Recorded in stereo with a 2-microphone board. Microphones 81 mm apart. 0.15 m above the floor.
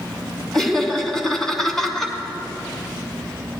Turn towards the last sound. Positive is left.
turn(degrees=5)  # may be behind; listen again after turning